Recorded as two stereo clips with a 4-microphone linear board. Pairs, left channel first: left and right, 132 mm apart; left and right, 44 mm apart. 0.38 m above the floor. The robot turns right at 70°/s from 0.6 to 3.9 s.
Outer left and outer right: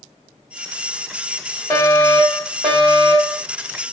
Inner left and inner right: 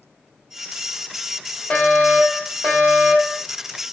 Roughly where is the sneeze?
I don't hear a sneeze.